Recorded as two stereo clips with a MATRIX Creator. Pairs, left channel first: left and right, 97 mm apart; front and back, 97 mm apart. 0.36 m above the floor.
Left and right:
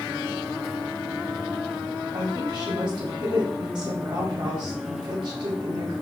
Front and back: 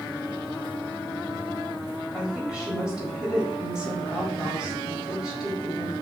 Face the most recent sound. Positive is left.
turn(degrees=-100)